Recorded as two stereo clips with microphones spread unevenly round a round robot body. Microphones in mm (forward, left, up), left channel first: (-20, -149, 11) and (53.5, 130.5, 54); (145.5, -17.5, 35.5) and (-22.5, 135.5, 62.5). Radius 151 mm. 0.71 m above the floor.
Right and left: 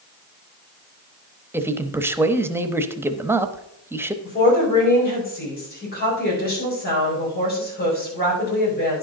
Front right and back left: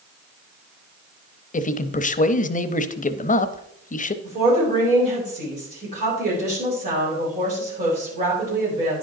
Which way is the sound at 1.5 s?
10° right.